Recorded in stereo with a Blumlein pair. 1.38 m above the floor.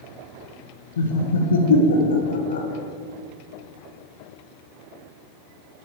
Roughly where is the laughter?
Ahead left.